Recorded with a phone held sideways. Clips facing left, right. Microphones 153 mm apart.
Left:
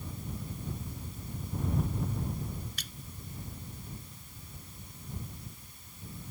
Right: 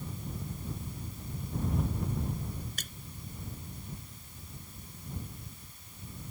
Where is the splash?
45° right (ahead or behind).